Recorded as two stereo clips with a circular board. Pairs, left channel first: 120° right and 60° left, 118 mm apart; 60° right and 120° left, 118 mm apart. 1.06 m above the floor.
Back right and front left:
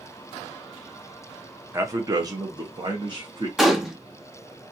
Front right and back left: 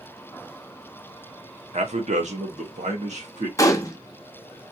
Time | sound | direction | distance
1.7 | a man speaking | 125° left | 0.9 m
3.6 | a gunshot | 25° right | 0.7 m